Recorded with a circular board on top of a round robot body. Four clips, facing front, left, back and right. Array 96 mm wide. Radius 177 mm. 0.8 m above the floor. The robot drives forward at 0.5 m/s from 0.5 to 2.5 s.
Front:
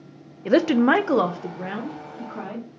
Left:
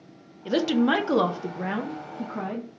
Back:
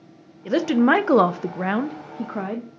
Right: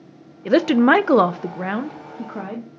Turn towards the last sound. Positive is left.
turn(degrees=-160)